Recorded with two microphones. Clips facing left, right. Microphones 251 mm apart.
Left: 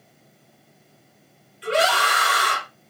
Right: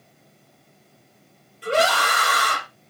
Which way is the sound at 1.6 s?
50° right (ahead or behind).